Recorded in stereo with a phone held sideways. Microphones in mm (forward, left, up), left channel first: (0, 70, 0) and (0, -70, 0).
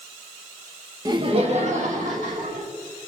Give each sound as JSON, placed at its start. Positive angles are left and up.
{"t": 1.1, "sound": "laughter", "side_deg": -25, "distance_m": 1.1}